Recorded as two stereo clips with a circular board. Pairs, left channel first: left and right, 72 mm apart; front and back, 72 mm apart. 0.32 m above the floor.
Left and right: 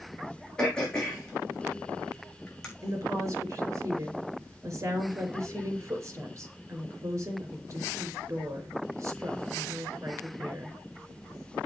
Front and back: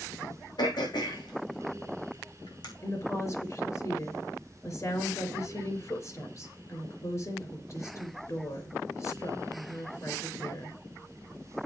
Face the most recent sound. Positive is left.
turn(degrees=-45)